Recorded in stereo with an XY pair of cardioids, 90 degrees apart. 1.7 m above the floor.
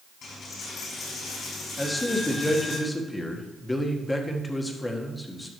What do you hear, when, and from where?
0.2 s a dropped coin: 70° left, 4.5 m
1.8 s a man speaking: 20° left, 1.6 m